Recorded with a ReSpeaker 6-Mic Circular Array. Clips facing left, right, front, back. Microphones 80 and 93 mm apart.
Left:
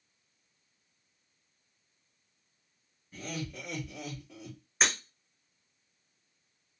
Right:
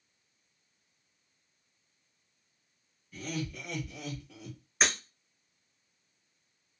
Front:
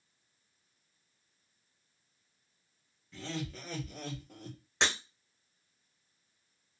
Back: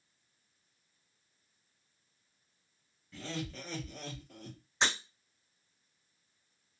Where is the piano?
No piano in this recording.